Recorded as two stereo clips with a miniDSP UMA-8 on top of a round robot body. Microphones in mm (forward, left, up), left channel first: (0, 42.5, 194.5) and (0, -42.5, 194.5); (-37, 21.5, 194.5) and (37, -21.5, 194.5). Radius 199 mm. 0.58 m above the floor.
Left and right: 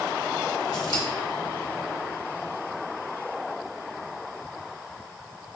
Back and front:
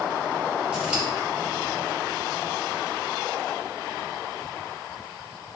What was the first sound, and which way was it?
Scissors, 50° left.